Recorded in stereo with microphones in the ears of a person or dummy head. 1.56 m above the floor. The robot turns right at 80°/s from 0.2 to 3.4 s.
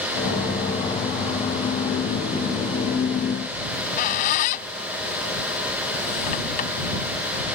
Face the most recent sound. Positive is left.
turn(degrees=45)  # may be behind; listen again after turning